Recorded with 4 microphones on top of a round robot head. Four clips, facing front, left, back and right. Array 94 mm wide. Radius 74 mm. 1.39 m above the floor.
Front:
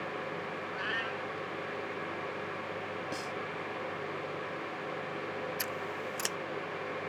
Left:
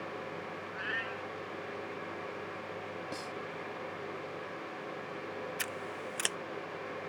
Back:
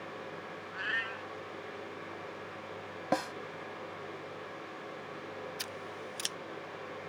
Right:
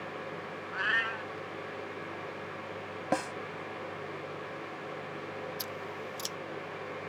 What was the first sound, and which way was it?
A cat meowing, 80° right.